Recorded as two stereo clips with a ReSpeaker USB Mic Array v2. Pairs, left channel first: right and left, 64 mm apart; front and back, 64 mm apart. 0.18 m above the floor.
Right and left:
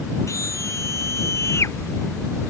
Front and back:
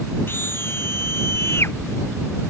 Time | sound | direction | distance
0.3 | a scream | 55° right | ?